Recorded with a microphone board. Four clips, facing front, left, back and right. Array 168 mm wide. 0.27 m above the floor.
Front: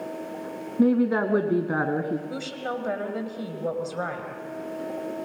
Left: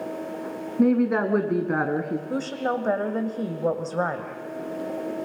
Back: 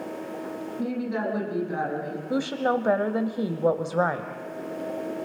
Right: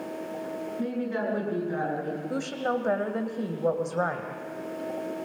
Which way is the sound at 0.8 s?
50° left.